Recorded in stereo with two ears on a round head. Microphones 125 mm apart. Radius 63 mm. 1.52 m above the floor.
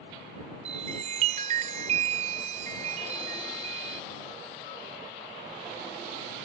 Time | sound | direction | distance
0.7 | a chime | 50° right (ahead or behind) | ?